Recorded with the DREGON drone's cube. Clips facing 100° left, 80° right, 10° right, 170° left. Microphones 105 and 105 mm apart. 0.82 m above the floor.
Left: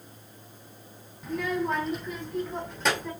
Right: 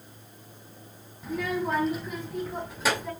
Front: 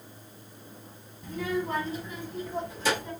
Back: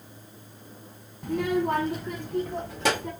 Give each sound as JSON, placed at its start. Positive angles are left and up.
{"t": 1.2, "sound": "a child speaking", "azimuth_deg": -165, "distance_m": 0.9}